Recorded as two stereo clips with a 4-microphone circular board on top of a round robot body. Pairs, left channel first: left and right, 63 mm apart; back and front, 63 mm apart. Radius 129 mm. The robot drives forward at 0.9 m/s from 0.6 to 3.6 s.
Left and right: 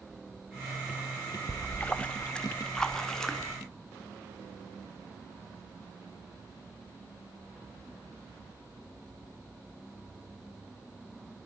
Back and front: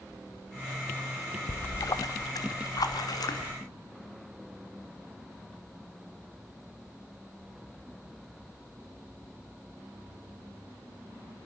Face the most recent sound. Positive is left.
turn(degrees=170)